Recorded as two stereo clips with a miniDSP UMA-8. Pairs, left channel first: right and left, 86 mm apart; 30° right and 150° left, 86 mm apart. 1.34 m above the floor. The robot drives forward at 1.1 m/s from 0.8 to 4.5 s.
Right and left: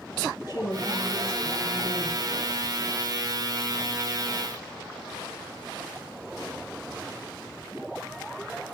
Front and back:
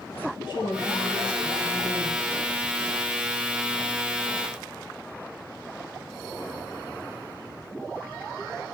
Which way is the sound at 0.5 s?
45° right.